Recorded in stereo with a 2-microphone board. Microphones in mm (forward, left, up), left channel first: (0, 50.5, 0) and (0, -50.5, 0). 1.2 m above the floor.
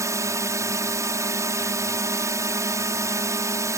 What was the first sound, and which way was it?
A drone, 30° right (ahead or behind).